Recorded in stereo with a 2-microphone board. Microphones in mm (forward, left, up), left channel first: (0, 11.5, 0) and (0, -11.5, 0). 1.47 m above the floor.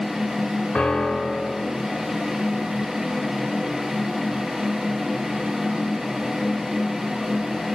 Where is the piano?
45° left (ahead or behind), 1.3 m.